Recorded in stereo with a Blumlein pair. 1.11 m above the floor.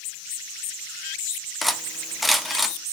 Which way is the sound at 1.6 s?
Straight ahead.